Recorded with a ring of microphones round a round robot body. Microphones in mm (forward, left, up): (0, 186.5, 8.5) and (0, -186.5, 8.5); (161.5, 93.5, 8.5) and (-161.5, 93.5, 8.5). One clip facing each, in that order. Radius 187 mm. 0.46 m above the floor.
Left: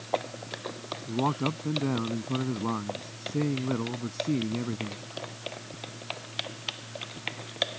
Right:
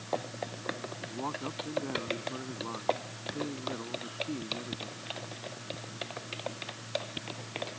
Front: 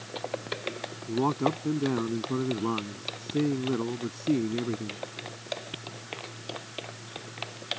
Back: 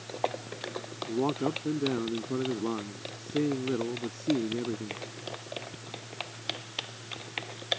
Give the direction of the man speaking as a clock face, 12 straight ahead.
10 o'clock.